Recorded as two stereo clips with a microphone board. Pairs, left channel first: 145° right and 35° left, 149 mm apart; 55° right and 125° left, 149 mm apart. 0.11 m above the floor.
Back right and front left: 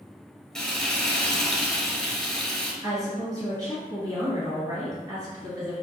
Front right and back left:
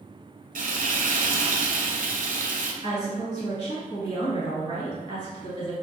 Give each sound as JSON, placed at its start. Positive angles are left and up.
{"t": 0.6, "sound": "frying", "azimuth_deg": 125, "distance_m": 0.7}
{"t": 2.8, "sound": "a woman speaking", "azimuth_deg": -20, "distance_m": 1.5}